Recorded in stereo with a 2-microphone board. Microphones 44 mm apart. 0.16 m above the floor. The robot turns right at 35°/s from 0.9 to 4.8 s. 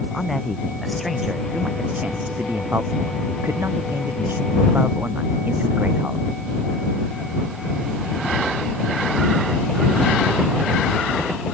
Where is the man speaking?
175° left; by 6.2 s 45° right.